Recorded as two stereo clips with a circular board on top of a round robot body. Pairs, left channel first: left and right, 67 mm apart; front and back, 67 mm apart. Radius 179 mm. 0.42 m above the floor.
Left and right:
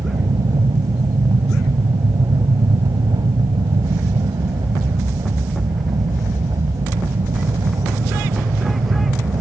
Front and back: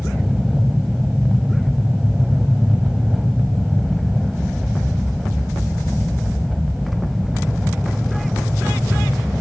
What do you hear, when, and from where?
0.0 s an aircraft: 95° right